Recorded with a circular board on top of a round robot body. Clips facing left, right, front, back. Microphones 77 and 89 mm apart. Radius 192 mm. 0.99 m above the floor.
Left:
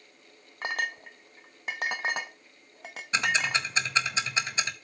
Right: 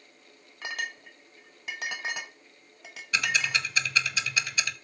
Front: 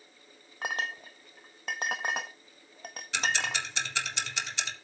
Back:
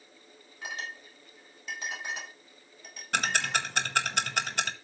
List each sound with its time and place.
0.6 s a clink: 40° left, 0.6 m
3.1 s ticking: 150° left, 1.4 m